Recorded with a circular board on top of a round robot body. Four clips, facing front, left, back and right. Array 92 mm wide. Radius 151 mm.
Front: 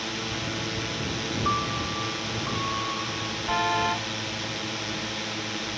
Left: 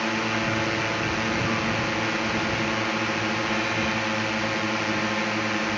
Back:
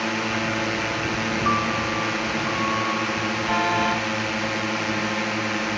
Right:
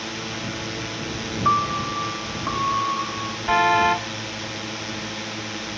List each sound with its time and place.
0.0 s a drone: 145° left
1.4 s a piano: 105° right
3.5 s a car horn: 100° right